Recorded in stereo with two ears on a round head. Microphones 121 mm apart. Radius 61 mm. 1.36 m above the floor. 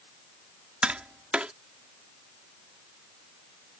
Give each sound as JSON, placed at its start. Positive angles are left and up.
{"t": 0.8, "sound": "tapping", "side_deg": -10}